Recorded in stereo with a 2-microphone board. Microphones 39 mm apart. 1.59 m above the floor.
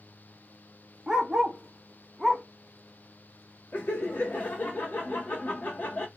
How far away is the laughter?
About 0.7 m.